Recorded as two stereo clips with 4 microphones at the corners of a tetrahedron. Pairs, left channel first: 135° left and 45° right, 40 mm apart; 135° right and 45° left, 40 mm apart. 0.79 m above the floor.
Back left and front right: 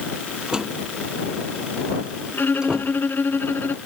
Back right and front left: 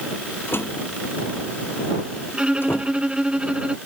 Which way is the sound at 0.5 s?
115° right.